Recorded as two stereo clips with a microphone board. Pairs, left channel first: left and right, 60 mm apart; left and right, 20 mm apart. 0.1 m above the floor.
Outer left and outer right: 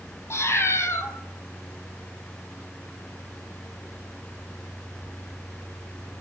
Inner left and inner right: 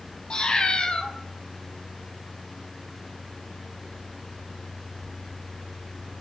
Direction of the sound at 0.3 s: 45° left (ahead or behind).